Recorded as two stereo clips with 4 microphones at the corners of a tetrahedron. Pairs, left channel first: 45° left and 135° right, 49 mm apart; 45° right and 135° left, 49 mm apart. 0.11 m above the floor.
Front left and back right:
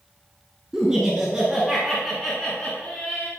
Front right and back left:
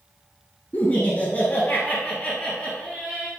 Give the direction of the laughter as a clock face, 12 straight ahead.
2 o'clock.